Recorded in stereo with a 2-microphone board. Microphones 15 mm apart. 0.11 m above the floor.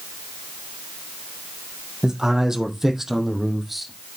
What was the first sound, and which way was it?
A man speaking, 50° right (ahead or behind).